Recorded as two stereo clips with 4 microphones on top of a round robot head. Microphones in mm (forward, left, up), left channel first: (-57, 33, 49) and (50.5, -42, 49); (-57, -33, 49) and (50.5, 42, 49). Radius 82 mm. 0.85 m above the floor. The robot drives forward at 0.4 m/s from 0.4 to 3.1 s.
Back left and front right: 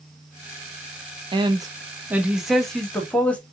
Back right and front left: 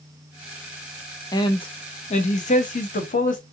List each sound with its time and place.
1.3 s a man speaking: 85° right, 0.7 m; by 3.4 s 135° right, 1.0 m